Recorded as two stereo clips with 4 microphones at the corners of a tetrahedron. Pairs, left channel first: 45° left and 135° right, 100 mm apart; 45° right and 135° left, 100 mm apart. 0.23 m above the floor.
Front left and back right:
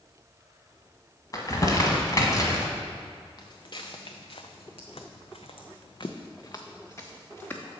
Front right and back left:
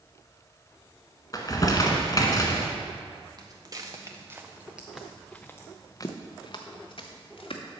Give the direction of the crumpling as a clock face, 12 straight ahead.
12 o'clock.